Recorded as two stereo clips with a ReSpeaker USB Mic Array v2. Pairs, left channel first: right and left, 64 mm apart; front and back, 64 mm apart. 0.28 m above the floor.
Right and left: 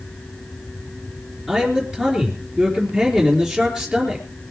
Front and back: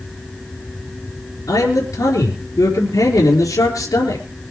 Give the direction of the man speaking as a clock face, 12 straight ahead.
12 o'clock.